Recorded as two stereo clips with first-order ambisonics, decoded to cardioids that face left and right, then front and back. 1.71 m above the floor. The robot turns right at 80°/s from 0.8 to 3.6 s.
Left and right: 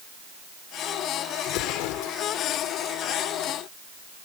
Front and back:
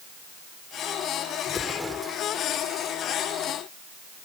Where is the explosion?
60° left; by 2.2 s 120° left.